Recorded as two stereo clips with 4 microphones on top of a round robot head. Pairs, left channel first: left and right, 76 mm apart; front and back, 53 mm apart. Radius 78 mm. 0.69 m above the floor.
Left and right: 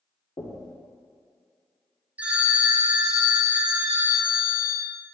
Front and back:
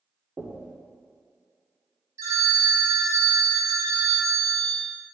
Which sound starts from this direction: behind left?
Knocking, at 0.4 s.